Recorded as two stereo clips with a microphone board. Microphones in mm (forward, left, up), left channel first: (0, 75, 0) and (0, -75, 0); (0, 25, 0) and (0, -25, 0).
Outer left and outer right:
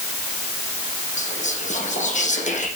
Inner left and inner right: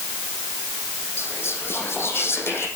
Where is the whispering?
55° left (ahead or behind), 6 m.